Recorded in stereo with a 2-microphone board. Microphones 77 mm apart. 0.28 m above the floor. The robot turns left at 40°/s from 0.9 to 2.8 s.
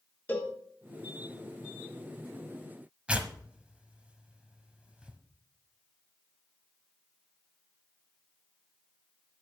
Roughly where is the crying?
I don't hear crying.